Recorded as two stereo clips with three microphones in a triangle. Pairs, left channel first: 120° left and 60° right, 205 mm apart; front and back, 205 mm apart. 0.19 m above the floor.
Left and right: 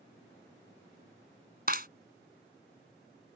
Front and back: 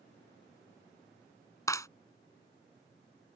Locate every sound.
1.7 s a clap: 70° right